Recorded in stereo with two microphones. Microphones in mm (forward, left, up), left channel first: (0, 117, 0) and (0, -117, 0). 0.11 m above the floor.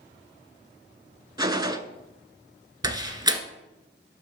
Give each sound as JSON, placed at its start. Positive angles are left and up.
{"t": 1.4, "sound": "a gunshot", "side_deg": -15, "distance_m": 0.5}
{"t": 2.8, "sound": "a door slam", "side_deg": -15, "distance_m": 0.9}